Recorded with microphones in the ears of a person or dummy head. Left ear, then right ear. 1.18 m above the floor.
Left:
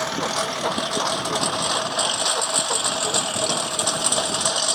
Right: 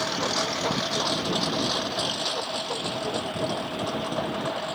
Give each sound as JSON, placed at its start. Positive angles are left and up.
{"t": 0.0, "sound": "a lawn mower", "side_deg": 25}